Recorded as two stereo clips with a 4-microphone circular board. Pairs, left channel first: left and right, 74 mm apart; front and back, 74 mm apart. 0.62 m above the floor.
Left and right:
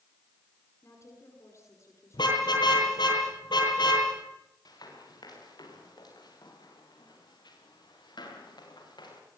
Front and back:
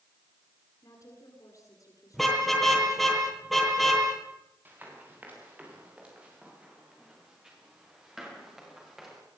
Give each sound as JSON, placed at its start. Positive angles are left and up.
{"t": 0.8, "sound": "a woman speaking", "azimuth_deg": 40, "distance_m": 8.0}
{"t": 2.1, "sound": "a car horn", "azimuth_deg": 90, "distance_m": 10.0}
{"t": 4.7, "sound": "running footsteps", "azimuth_deg": 115, "distance_m": 9.0}